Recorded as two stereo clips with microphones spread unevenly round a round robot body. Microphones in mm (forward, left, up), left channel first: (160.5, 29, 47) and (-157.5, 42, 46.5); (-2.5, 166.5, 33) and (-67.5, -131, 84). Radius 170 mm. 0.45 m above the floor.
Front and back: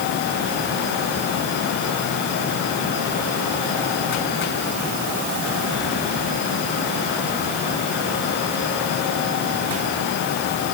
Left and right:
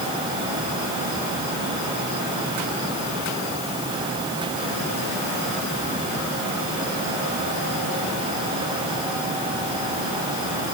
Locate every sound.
Only background noise.